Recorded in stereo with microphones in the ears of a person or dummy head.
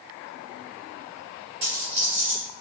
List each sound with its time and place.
1.6 s a dropped coin: 25° right (ahead or behind), 1.0 m